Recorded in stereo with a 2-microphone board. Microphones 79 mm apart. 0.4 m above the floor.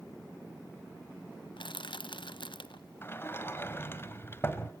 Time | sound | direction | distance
1.6 | crushing | 85° left | 0.7 m
3.0 | a sliding door | 30° left (ahead or behind) | 1.6 m